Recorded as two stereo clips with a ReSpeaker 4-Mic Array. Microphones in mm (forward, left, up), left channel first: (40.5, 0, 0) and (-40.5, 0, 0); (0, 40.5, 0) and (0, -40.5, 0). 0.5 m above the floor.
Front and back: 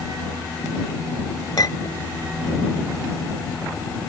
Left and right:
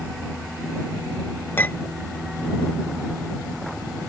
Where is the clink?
30° left.